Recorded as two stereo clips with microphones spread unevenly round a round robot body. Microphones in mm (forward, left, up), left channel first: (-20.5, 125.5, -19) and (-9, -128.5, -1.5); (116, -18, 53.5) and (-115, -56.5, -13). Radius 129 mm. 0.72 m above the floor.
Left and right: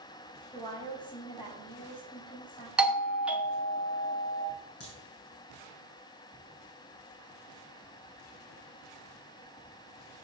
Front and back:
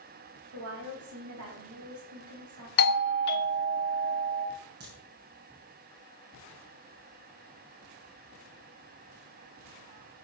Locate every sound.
0.5 s a woman speaking: 165° left, 4 m
2.8 s a doorbell: straight ahead, 0.9 m
4.8 s a crack: 140° left, 6 m